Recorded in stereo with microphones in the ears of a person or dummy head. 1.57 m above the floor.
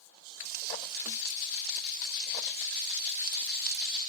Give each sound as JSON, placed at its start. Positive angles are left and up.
{"t": 0.5, "sound": "frying", "side_deg": -50}